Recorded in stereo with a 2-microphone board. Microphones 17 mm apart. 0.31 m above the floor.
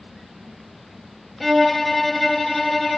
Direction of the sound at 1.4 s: 5° left (ahead or behind).